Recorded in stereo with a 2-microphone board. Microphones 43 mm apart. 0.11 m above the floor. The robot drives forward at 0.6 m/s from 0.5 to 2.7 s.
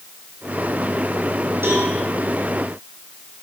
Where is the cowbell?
55° right (ahead or behind), 4 m.